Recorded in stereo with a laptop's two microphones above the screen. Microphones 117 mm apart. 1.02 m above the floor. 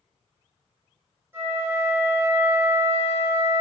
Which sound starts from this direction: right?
A flute, at 1.3 s.